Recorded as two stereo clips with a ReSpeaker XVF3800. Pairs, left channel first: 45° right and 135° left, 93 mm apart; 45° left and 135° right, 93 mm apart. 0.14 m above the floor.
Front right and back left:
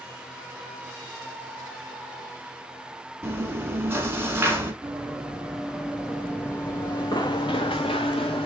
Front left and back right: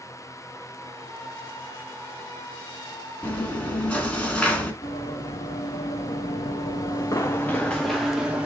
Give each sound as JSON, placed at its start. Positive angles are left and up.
{"t": 3.2, "sound": "chewing", "azimuth_deg": 105, "distance_m": 0.7}
{"t": 4.8, "sound": "running footsteps", "azimuth_deg": 60, "distance_m": 1.4}